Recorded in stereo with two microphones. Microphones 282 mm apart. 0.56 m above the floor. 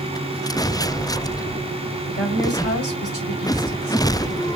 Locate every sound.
2.1 s a woman speaking: 60° left (ahead or behind), 2 m; by 4.5 s 45° left (ahead or behind), 3 m